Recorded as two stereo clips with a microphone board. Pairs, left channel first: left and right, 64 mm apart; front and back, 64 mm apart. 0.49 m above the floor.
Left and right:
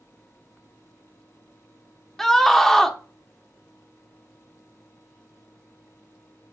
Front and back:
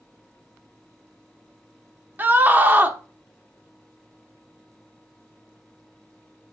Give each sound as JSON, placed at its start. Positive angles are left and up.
{"t": 2.2, "sound": "a scream", "azimuth_deg": 170, "distance_m": 0.9}